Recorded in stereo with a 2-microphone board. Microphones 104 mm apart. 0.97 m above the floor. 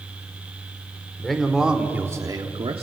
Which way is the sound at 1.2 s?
5° left (ahead or behind).